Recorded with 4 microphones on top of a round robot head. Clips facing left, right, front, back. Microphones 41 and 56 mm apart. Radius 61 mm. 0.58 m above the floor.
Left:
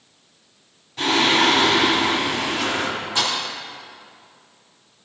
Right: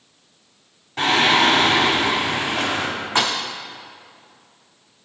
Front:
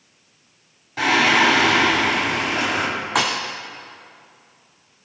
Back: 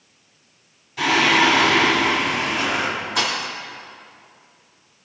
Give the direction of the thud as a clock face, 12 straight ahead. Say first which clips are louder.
Right 3 dB, front 4 dB; 1 o'clock.